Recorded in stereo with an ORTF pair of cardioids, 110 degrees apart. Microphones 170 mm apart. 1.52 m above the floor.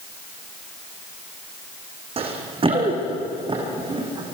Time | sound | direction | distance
2.2 | running footsteps | 35° right | 5 m